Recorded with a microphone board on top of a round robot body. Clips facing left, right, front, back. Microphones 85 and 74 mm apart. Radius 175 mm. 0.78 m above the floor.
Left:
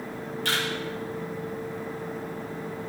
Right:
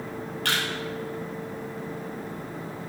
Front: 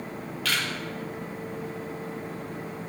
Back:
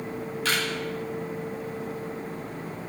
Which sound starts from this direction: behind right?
A camera shutter, at 0.5 s.